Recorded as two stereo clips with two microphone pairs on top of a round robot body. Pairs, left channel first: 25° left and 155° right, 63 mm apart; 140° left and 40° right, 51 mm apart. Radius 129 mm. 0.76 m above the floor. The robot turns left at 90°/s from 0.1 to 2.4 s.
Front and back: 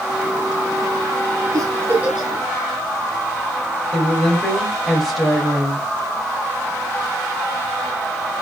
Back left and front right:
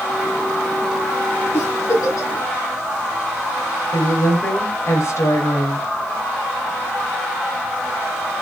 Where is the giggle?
Straight behind, 4 m; by 2.3 s 110° left, 4 m.